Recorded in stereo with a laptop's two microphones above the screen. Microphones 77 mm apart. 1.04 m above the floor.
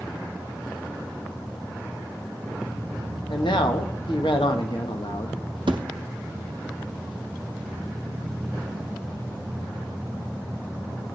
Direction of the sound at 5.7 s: 70° right (ahead or behind).